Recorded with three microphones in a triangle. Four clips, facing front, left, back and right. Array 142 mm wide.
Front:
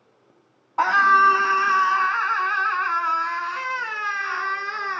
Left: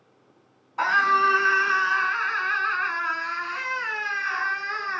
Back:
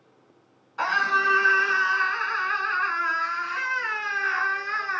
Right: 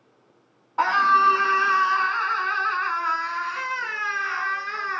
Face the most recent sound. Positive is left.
turn(degrees=-10)